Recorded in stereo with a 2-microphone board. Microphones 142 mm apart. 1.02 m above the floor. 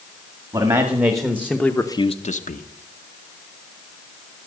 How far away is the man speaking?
About 1.9 m.